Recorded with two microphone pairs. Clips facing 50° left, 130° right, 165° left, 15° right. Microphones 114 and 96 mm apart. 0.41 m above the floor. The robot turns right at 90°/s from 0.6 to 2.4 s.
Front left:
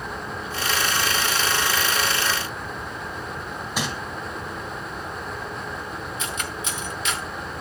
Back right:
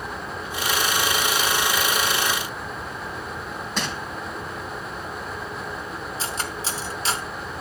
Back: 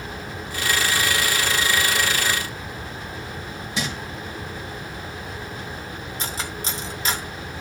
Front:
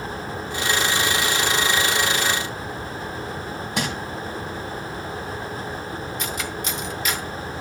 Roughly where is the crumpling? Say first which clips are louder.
Front left 1 dB, front 2 dB; ahead right.